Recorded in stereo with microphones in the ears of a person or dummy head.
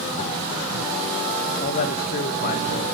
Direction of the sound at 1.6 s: 45° left (ahead or behind).